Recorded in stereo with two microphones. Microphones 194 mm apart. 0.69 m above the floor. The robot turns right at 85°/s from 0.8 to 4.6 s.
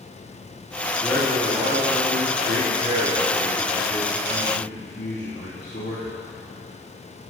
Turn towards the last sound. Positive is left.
turn(degrees=110)